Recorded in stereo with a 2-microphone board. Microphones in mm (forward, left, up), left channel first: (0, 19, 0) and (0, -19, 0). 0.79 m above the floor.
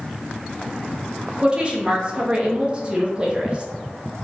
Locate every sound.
1.4 s a woman speaking: 25° right (ahead or behind), 0.9 m